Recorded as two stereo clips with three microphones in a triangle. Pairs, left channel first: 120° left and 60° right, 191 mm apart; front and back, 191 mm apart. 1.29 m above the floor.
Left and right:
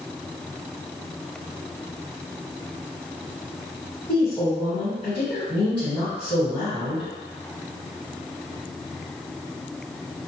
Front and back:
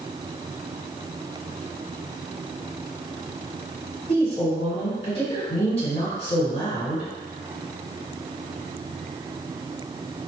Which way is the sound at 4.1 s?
55° left.